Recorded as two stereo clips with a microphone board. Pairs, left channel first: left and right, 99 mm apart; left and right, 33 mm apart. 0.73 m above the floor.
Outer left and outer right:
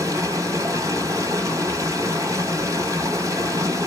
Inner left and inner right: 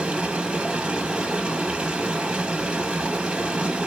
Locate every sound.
0.0 s running water: 30° right (ahead or behind), 1.4 m